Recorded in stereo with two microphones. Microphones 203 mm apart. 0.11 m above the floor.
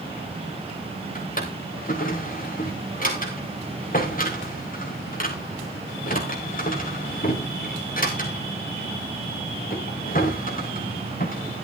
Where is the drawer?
45° left (ahead or behind), 3.5 m.